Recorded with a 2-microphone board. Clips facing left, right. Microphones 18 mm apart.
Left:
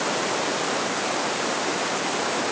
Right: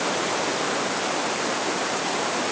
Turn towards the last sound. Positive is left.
No sound to turn to.